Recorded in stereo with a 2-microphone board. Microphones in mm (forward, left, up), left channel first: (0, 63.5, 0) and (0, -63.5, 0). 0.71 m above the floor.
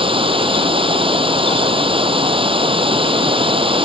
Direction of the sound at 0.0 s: 45° right (ahead or behind).